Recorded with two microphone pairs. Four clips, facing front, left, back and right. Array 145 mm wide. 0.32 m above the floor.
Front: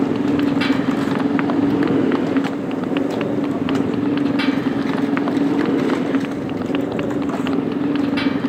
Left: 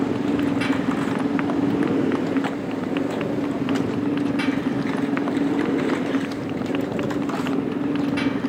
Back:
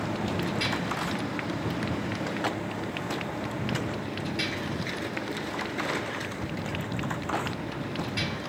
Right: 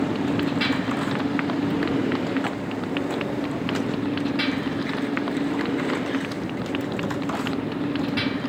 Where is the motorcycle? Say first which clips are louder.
Left 2 dB, front 13 dB; 15° left; by 8.5 s 20° left.